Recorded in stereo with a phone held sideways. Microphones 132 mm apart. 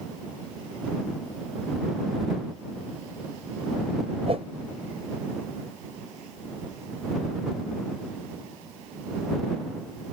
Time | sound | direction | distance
4.3 | a whoosh | 50° right (ahead or behind) | ?